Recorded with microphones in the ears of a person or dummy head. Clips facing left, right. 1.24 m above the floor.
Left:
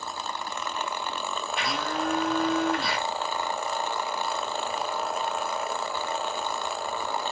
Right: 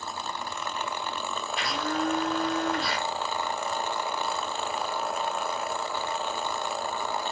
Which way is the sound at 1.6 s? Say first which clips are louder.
Right 1 dB; 5° left (ahead or behind).